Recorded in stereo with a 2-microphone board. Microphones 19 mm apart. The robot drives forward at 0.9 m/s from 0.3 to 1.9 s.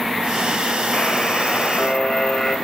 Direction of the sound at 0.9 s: 65° left (ahead or behind).